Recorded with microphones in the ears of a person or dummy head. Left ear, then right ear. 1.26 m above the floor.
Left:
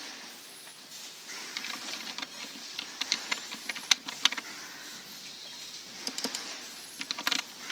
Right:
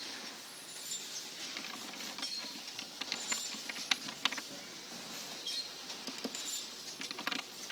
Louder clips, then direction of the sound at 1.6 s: Left 6 dB; 20° left (ahead or behind).